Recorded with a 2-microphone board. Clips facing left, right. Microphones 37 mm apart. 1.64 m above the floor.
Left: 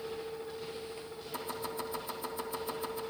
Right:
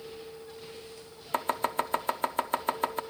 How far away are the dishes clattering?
No dishes clattering in this recording.